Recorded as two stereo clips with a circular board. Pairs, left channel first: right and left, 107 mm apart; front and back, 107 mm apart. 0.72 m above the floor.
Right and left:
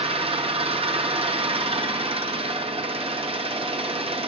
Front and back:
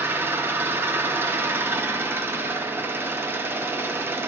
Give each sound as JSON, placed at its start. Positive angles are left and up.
{"t": 0.0, "sound": "an engine running", "azimuth_deg": 110, "distance_m": 0.8}